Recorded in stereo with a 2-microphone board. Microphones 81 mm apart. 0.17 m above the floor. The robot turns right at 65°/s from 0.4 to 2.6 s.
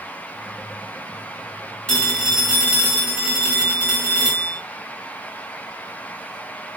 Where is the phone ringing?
160° left, 1.3 m; by 4.6 s 150° right, 1.3 m.